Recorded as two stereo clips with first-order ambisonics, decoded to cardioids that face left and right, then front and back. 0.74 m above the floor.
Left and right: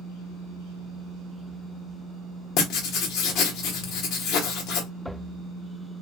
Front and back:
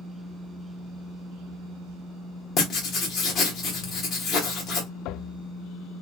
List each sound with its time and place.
2.6 s writing: 50° left, 1.0 m